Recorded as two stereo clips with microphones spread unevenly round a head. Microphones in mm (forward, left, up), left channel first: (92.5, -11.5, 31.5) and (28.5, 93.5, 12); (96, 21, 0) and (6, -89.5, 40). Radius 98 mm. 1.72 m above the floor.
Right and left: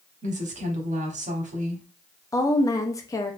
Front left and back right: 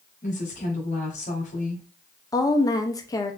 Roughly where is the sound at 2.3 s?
Ahead.